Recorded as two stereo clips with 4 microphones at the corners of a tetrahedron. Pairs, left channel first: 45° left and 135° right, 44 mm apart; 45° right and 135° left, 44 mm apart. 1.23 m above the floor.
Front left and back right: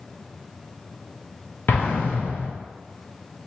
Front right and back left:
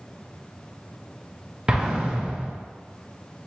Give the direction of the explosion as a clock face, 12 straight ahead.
10 o'clock.